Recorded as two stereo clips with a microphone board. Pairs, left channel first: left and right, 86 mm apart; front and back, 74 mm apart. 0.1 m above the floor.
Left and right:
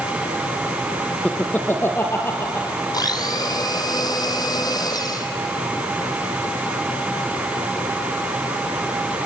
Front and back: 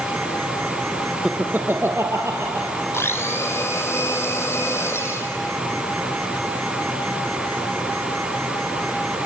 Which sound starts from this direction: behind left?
Laughter, at 1.2 s.